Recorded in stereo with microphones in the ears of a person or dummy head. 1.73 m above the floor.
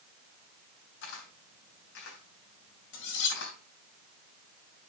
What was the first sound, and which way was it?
A camera shutter, 55° left (ahead or behind).